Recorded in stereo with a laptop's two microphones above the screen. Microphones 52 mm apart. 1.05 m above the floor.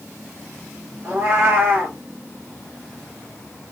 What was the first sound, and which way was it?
A cat meowing, 25° right (ahead or behind).